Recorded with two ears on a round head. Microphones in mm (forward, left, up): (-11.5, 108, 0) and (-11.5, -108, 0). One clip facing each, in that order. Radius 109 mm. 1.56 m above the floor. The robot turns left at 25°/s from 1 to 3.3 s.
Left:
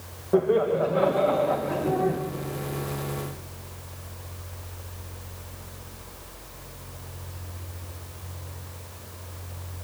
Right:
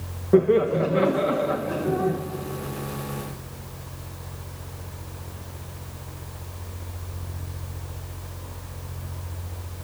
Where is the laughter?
30° right (ahead or behind), 1.4 m; by 2.2 s 5° right (ahead or behind), 1.4 m.